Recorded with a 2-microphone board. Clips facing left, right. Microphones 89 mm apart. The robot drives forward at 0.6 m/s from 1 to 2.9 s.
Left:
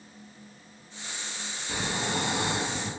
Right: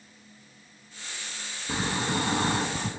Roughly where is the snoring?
Right.